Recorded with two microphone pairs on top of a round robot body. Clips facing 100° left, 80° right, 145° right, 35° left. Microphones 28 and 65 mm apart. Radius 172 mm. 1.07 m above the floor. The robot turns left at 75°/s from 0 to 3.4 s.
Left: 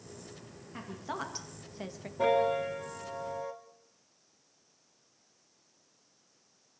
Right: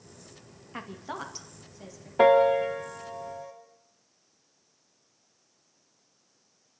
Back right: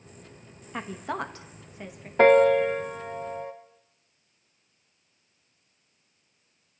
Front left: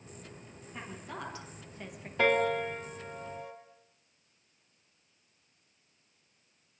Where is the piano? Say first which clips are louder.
Right 8 dB, back right 10 dB; 95° right, 1.4 m; by 3.5 s 175° left, 1.4 m.